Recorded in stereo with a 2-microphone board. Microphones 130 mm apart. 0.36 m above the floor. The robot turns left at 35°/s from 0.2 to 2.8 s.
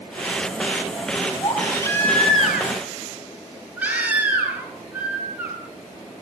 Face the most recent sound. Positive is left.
turn(degrees=-10)